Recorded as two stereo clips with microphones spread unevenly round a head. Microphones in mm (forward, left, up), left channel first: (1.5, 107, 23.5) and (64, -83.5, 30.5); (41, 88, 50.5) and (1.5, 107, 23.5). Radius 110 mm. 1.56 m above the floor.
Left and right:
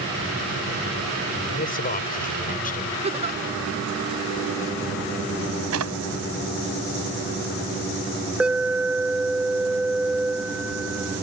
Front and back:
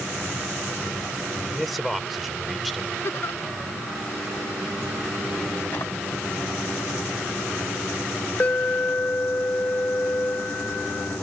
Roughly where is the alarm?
Ahead.